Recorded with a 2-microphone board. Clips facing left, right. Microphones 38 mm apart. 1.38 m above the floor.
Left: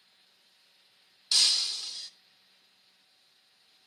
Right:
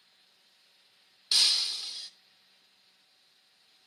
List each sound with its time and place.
1.3 s breaking glass: 15° right (ahead or behind), 0.9 m